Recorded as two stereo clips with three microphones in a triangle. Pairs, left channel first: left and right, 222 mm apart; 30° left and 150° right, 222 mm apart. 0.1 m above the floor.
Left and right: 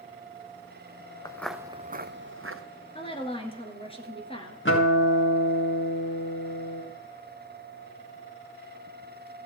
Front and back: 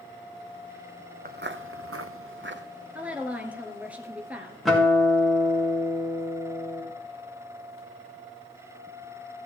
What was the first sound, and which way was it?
Footsteps, 165° left.